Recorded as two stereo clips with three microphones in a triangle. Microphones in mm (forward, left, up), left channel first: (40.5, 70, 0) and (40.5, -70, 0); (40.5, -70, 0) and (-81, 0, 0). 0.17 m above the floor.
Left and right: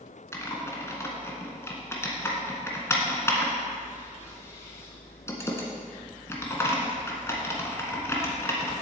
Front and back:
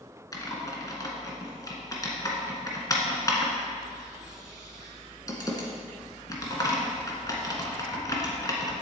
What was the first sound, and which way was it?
Typing on a keyboard, 25° left.